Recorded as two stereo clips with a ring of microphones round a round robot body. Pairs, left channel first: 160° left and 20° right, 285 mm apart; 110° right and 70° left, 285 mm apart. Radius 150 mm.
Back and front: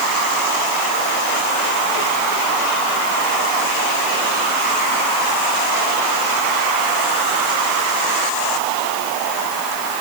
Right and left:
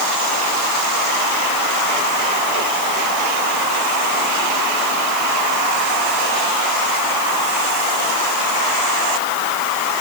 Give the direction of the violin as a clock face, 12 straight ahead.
I don't hear a violin.